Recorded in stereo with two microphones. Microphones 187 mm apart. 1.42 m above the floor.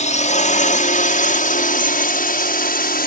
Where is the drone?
40° left (ahead or behind); by 3.1 s 55° left (ahead or behind).